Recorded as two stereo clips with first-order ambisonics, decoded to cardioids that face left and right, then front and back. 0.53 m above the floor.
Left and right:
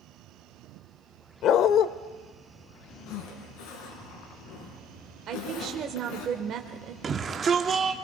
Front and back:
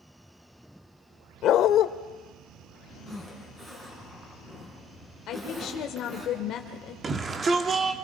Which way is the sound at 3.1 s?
105° left.